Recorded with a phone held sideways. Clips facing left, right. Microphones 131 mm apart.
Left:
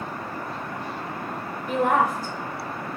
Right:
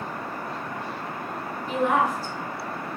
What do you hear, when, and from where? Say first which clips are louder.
1.7 s a woman speaking: left 1 dB; 55° left (ahead or behind), 0.5 m